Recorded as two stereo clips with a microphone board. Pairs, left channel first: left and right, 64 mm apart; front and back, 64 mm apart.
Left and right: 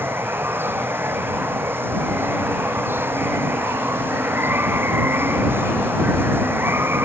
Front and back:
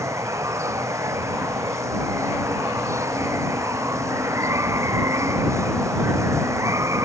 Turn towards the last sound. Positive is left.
turn(degrees=-145)